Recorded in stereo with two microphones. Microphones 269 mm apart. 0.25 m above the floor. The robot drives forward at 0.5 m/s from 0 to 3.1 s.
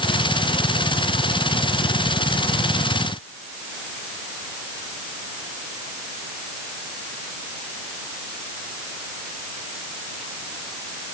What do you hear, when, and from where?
Only background noise.